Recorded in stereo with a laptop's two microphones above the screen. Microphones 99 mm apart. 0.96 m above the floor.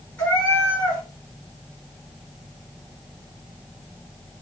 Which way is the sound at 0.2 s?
15° left (ahead or behind).